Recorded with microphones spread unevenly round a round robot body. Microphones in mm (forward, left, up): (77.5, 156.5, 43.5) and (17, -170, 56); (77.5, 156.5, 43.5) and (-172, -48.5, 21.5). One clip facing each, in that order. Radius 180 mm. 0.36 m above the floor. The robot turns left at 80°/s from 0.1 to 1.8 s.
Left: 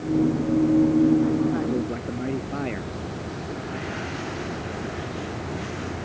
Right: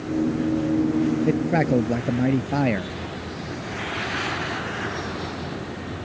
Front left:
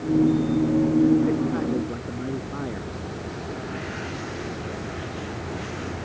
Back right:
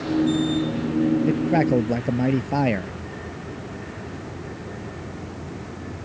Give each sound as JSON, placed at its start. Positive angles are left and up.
{"t": 1.3, "sound": "a man speaking", "azimuth_deg": -90}